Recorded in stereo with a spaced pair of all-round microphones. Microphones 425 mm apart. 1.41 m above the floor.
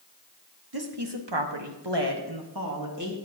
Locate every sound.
0.7 s a woman speaking: 55° right (ahead or behind), 1.5 m; by 3.1 s 40° right (ahead or behind), 2 m